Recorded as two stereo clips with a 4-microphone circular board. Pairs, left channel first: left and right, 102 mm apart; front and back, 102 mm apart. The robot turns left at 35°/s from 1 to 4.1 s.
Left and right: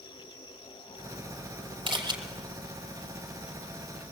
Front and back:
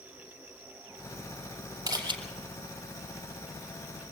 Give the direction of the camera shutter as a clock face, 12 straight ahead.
4 o'clock.